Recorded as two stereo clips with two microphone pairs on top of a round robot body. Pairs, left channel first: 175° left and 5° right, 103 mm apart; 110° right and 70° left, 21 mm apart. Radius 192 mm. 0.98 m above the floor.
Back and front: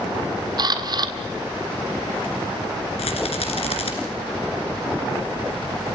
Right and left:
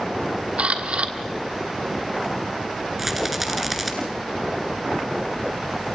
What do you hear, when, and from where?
0.6 s a camera shutter: 40° left, 1.5 m
3.0 s a rattle: 150° left, 2.5 m